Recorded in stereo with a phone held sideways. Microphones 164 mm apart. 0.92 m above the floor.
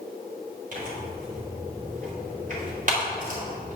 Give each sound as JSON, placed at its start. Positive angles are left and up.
{"t": 0.7, "sound": "tearing paper", "side_deg": -55, "distance_m": 2.5}